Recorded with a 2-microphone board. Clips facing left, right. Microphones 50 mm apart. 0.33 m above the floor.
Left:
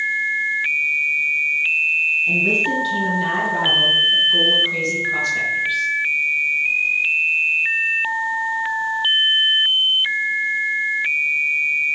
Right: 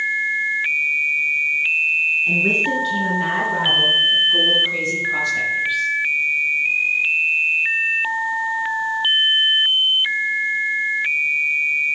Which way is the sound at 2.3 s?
45° right (ahead or behind).